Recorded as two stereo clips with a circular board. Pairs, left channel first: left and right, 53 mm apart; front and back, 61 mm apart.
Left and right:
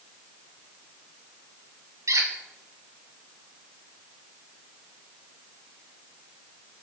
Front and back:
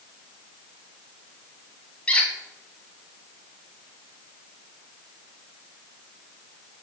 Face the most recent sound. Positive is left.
turn(degrees=-70)